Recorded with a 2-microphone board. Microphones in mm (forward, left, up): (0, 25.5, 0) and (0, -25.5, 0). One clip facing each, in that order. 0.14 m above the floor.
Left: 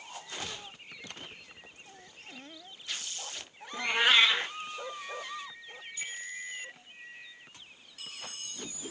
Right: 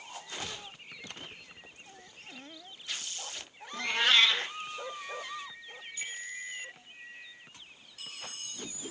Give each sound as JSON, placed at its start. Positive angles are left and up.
{"t": 3.7, "sound": "a cat meowing", "side_deg": 15, "distance_m": 0.6}